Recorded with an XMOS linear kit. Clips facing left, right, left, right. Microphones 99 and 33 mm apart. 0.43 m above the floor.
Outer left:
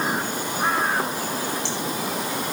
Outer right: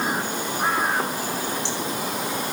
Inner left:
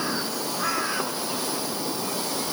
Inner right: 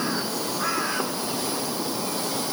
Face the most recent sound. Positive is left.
No sound to turn to.